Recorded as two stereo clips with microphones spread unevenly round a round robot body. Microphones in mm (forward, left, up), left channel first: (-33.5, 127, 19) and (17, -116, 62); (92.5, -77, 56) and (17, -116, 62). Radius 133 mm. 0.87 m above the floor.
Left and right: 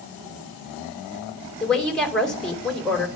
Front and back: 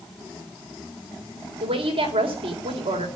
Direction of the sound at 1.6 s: 170° right.